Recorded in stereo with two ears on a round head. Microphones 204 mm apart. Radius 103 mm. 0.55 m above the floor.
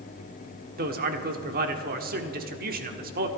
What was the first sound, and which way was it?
A man speaking, 45° right (ahead or behind).